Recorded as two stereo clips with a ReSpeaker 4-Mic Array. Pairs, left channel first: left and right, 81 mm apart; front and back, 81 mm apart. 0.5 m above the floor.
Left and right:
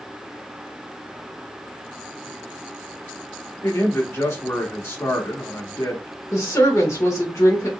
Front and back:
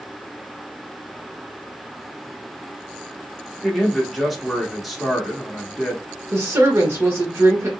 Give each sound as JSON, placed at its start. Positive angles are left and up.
{"t": 3.6, "sound": "a man speaking", "azimuth_deg": 90, "distance_m": 0.9}
{"t": 6.3, "sound": "a woman speaking", "azimuth_deg": 130, "distance_m": 1.1}